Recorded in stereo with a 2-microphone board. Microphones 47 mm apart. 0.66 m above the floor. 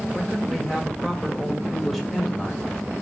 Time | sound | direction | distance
0.1 | a man speaking | 5° left (ahead or behind) | 2.5 m